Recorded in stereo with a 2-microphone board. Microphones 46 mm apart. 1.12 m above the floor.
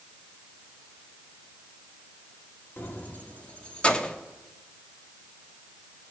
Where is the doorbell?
No doorbell in this recording.